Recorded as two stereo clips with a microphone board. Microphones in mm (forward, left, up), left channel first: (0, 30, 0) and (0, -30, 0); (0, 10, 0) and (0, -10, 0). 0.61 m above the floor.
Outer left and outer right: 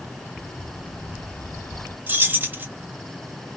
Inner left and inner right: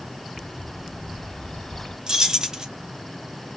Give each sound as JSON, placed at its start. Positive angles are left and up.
{"t": 0.4, "sound": "a bird", "side_deg": 35, "distance_m": 1.1}
{"t": 2.1, "sound": "keys jangling", "side_deg": -30, "distance_m": 0.7}